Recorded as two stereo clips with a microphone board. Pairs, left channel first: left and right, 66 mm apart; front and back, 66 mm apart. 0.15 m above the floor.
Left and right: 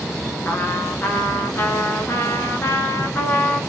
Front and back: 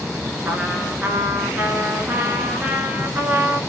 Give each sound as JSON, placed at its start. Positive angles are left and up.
{"t": 0.5, "sound": "a trumpet", "azimuth_deg": 130, "distance_m": 0.8}